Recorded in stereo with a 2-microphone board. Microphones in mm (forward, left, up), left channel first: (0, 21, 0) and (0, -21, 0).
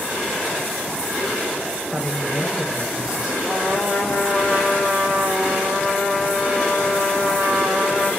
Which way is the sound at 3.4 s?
40° right (ahead or behind).